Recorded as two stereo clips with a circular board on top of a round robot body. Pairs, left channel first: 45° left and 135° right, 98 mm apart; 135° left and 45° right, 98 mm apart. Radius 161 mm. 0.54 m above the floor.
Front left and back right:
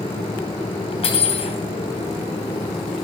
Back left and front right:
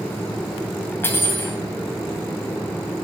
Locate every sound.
1.0 s cutlery clinking: 65° left, 2.5 m